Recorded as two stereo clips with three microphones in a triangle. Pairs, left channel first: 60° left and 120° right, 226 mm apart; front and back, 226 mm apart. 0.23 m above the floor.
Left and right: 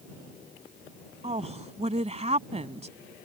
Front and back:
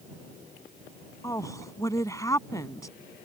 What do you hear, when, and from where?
1.2 s a woman speaking: 70° right